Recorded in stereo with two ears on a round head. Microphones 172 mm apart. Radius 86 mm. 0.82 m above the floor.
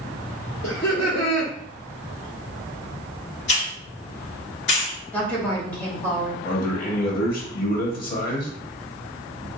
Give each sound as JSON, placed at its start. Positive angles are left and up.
{"t": 0.6, "sound": "laughter", "side_deg": 60, "distance_m": 1.7}
{"t": 3.5, "sound": "a hiss", "side_deg": 65, "distance_m": 1.5}
{"t": 5.1, "sound": "a woman speaking", "side_deg": 10, "distance_m": 1.5}
{"t": 6.5, "sound": "a man speaking", "side_deg": 50, "distance_m": 1.0}